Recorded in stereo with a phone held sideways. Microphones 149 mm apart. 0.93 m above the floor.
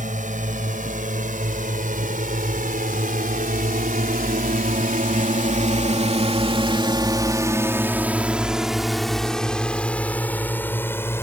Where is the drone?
60° right (ahead or behind); by 11.2 s 15° left (ahead or behind).